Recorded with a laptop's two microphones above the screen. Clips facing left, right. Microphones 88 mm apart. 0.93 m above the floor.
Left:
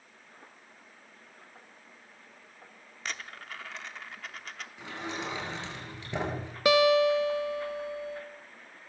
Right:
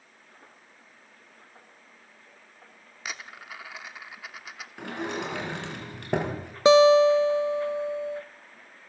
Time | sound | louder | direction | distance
3.0 | a dropped coin | right 1 dB | 10° right (ahead or behind) | 0.7 m
4.8 | a sliding door | right 5 dB | 60° right (ahead or behind) | 5 m
6.7 | a guitar | right 6 dB | 25° right (ahead or behind) | 0.8 m